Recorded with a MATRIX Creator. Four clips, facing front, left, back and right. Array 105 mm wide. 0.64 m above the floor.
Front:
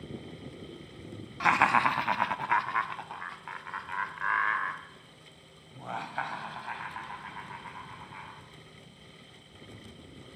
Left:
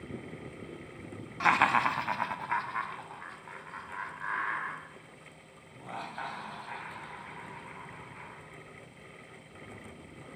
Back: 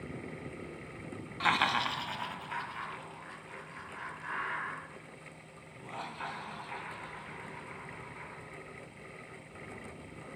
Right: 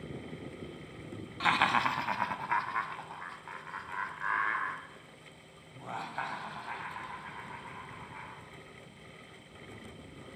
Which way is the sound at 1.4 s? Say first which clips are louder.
Left 3 dB, front 6 dB; 55° left.